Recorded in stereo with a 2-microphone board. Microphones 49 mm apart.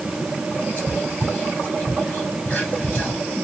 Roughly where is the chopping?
No chopping in this recording.